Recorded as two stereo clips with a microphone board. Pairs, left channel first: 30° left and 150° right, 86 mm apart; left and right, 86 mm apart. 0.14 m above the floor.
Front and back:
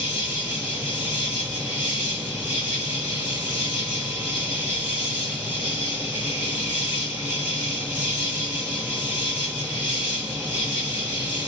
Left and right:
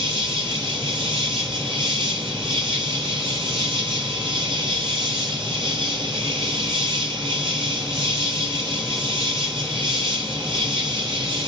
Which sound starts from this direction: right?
An insect, at 0.0 s.